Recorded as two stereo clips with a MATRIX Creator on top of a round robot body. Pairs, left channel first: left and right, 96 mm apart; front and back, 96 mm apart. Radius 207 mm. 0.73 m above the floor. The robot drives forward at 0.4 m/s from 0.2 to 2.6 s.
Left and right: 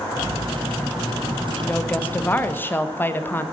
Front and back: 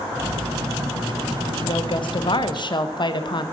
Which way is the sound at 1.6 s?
20° left.